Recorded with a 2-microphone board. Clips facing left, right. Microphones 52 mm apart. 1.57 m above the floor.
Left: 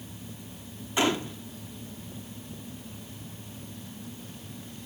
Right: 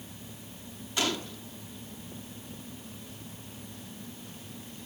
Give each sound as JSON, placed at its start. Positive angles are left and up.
{"t": 1.0, "sound": "a gunshot", "side_deg": 25, "distance_m": 1.2}